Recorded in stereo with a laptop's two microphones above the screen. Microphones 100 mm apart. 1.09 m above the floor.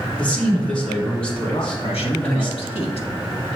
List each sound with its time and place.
0.2 s a man speaking: 10° left (ahead or behind), 2.5 m
1.5 s a man speaking: 80° left, 1.5 m